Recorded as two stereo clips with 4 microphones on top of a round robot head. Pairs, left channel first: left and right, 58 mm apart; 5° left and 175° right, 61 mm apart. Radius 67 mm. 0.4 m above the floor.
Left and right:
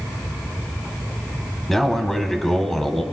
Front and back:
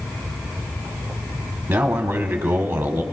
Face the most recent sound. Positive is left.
turn(degrees=170)